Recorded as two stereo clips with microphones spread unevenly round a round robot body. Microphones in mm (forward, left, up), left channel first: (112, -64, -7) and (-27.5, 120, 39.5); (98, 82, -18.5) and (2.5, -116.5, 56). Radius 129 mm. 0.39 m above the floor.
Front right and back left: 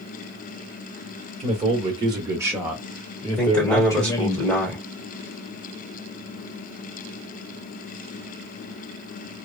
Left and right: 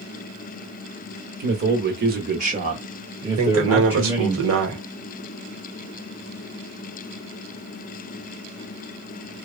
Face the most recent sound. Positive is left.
turn(degrees=-125)